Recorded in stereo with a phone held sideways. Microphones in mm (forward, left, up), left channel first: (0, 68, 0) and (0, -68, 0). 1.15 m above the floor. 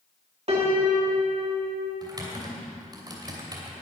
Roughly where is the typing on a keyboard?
Right.